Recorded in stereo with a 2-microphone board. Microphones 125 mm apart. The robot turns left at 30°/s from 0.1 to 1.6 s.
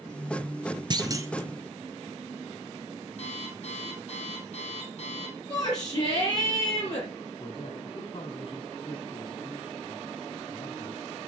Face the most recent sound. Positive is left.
turn(degrees=45)  # may be behind; listen again after turning